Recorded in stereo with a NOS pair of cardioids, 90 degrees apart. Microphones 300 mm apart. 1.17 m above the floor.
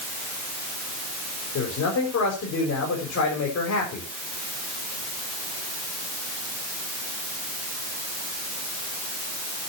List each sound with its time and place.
1.6 s a man speaking: 60° left, 5.5 m